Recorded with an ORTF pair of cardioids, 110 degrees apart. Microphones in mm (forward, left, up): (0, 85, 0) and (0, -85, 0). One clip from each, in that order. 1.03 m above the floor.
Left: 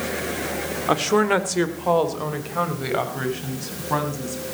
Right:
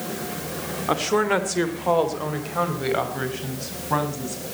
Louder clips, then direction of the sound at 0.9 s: Left 2 dB; 10° left.